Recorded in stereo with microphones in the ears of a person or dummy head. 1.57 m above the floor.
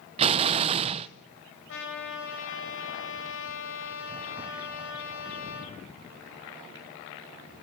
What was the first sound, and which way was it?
An explosion, 35° right (ahead or behind).